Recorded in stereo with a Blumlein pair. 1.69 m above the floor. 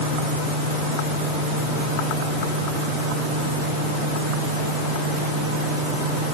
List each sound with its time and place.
Only background noise.